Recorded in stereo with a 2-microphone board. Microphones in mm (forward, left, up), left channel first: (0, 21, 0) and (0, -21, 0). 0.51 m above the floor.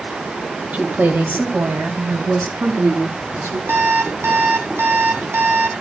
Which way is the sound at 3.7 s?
65° right (ahead or behind).